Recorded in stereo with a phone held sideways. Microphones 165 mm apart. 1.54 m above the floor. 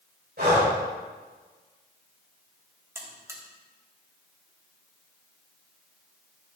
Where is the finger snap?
No finger snap in this recording.